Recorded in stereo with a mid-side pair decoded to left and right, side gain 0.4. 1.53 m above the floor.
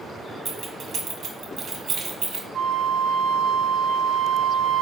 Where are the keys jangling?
60° right, 1.8 m.